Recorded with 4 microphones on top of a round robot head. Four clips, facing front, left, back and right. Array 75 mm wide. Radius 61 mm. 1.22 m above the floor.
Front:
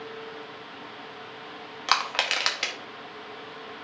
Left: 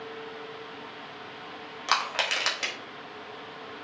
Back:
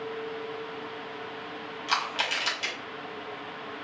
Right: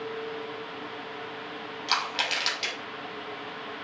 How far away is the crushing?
About 1.0 m.